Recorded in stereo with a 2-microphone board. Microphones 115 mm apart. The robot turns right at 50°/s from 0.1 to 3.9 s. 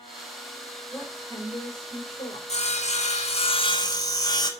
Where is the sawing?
75° left, 2 m; by 4.5 s 145° left, 2 m.